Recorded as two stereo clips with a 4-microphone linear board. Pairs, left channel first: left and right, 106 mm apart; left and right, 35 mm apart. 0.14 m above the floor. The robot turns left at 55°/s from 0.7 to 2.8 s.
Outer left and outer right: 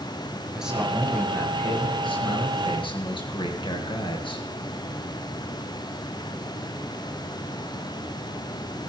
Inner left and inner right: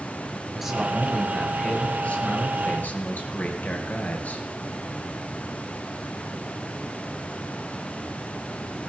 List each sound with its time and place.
0.5 s a man speaking: 175° right, 2.5 m; by 4.5 s 70° left, 2.5 m